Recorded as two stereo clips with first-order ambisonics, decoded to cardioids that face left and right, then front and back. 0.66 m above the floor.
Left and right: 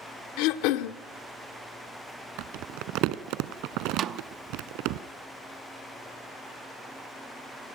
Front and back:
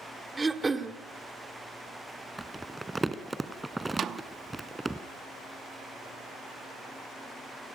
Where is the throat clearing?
100° left, 1.1 m.